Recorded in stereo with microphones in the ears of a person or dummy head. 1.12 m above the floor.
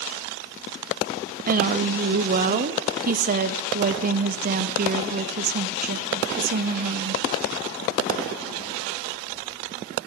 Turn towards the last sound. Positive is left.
turn(degrees=-40)  # may be behind; listen again after turning